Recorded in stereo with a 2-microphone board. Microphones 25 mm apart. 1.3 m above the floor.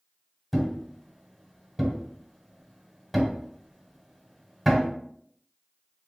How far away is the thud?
About 1.1 m.